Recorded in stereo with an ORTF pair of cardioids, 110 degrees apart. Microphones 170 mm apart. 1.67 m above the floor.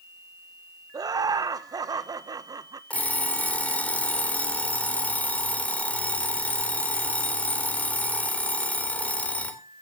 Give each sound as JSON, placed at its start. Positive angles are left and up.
{"t": 0.9, "sound": "laughter", "azimuth_deg": -20, "distance_m": 1.5}
{"t": 2.9, "sound": "an alarm clock", "azimuth_deg": 10, "distance_m": 3.0}